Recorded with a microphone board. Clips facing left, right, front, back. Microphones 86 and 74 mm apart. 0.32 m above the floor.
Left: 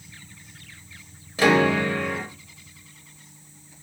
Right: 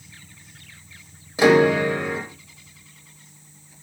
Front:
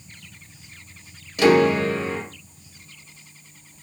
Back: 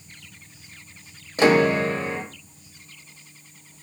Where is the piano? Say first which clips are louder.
Right 4 dB, front 1 dB; 150° right, 0.7 m.